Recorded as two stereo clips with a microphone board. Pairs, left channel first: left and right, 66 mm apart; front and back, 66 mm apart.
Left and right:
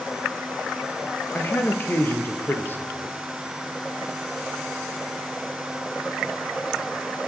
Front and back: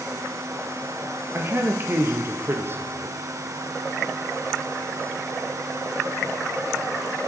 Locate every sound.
1.3 s a man speaking: 140° left, 1.9 m